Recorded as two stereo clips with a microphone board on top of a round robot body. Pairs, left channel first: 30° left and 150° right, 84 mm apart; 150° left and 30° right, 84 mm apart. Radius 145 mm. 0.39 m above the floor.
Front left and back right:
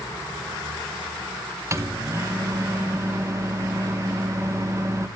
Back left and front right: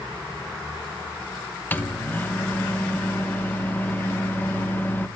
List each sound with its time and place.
1.7 s a microwave: 160° right, 1.0 m